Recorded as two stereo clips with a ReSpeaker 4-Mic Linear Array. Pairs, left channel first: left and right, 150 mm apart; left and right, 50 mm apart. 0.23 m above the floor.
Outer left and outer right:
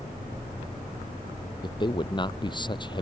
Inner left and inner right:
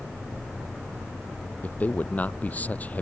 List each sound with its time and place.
1.6 s a man speaking: 30° left (ahead or behind)